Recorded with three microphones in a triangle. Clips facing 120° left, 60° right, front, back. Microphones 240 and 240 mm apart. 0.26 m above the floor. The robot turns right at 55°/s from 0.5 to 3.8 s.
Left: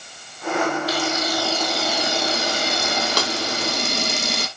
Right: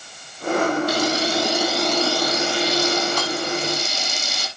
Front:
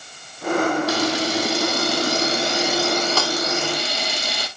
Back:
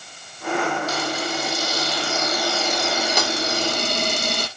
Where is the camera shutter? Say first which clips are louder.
Right 3 dB, front 5 dB; 20° right, 2 m; by 4.5 s 140° left, 2 m.